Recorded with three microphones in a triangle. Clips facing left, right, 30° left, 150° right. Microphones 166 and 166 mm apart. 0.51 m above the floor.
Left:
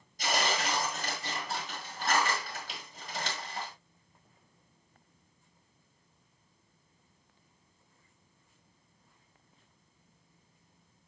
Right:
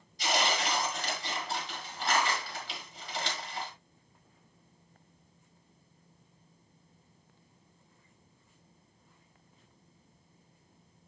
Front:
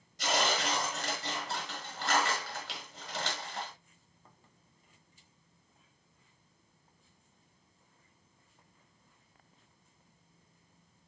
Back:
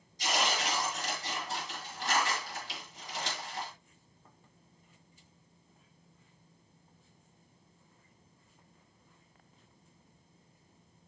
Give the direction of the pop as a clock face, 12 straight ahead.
No pop in this recording.